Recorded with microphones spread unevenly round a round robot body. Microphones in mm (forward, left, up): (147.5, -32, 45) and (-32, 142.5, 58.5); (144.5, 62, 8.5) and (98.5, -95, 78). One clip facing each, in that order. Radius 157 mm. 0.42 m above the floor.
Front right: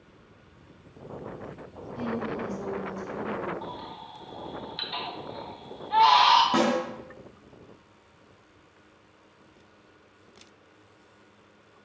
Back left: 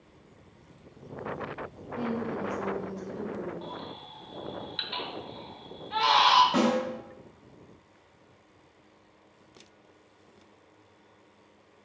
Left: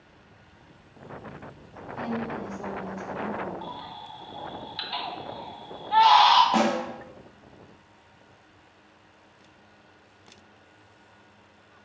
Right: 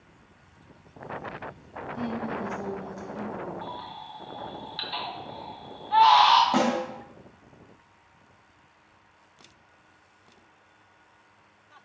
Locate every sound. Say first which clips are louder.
2.0 s a woman speaking: even, even; 95° right, 1.1 m
3.6 s a baby crying: even, even; 55° left, 0.8 m
6.5 s a snare drum: even, even; 20° right, 1.4 m